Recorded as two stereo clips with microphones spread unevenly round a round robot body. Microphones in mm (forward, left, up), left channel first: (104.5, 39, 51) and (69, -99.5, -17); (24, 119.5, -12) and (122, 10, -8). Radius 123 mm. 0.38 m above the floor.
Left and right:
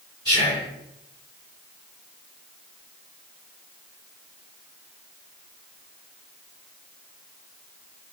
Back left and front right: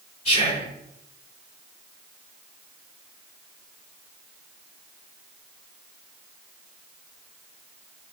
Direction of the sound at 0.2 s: 160° left.